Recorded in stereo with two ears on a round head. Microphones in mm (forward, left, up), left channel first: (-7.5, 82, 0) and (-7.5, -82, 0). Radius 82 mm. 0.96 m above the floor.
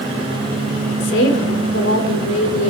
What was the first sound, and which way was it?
A woman speaking, 80° left.